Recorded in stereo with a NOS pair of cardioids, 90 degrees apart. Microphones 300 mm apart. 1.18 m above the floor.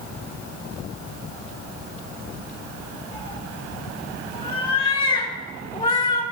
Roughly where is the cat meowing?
Ahead.